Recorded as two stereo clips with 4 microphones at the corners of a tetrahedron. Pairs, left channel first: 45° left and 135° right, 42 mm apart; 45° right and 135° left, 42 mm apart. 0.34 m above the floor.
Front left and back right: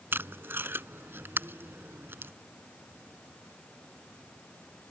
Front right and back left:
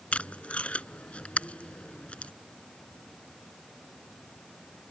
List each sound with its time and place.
0.1 s tape being pulled: 105° right